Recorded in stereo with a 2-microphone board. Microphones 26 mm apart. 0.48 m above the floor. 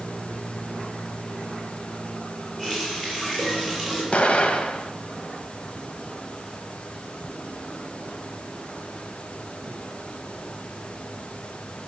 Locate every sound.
2.6 s a running tap: 10° left (ahead or behind), 7 m
4.1 s an explosion: 45° left (ahead or behind), 1.0 m